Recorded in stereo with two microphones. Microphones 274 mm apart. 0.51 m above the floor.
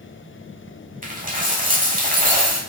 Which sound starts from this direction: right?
A dropped coin, at 1.0 s.